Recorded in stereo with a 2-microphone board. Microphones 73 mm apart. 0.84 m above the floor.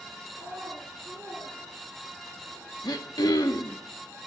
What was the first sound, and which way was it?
A child speaking, 15° right (ahead or behind).